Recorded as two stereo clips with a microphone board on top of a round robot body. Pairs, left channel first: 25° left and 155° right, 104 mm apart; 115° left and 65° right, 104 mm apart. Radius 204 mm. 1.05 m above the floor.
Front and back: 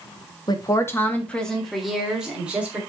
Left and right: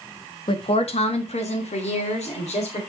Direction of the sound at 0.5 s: 75° left.